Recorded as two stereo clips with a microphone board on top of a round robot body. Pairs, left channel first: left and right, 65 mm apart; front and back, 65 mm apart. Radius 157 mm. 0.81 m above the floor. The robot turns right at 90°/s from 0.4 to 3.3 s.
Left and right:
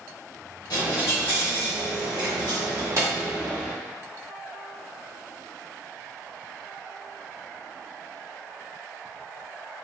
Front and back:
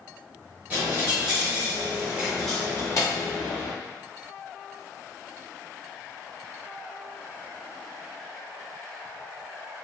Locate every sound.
0.7 s a dropped coin: 110° left, 1.0 m; by 3.7 s 15° right, 1.0 m